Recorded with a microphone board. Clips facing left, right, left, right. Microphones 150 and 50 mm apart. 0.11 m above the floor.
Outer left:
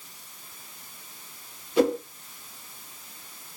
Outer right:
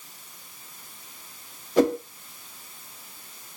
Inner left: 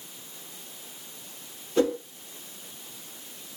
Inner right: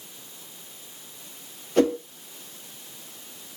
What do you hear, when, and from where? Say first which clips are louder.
1.8 s a whoosh: outer right 1 dB, inner right 3 dB; 45° right (ahead or behind), 1.4 m